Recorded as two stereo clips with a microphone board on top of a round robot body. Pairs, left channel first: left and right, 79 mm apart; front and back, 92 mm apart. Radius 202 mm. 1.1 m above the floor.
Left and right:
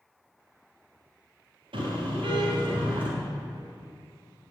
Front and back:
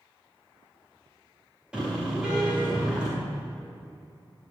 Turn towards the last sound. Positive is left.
turn(degrees=-100)